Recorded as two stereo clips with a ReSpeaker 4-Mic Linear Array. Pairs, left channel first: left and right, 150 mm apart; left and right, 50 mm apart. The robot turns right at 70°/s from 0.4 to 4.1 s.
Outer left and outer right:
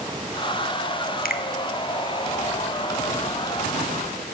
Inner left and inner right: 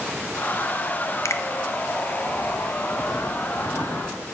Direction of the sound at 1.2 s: 75° left (ahead or behind).